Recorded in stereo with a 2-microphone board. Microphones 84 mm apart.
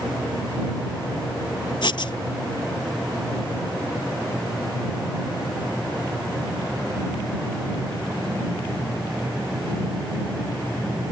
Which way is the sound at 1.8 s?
70° left (ahead or behind).